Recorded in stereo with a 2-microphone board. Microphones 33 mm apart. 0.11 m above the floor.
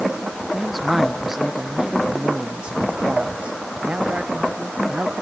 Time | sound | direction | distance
0.5 | a man speaking | centre (ahead or behind) | ?